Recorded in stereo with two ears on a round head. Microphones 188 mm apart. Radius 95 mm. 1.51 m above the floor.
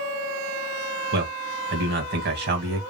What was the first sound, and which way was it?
A man speaking, 55° right (ahead or behind).